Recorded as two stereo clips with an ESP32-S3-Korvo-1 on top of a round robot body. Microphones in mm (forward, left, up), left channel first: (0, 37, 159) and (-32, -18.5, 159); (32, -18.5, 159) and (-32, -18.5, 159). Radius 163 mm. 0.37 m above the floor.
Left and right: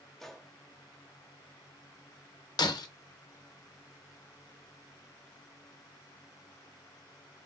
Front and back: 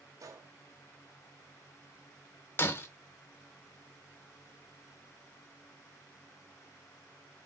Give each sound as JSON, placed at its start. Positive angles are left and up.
{"t": 0.2, "sound": "a gunshot", "azimuth_deg": 145, "distance_m": 0.7}
{"t": 2.6, "sound": "breaking glass", "azimuth_deg": 55, "distance_m": 0.7}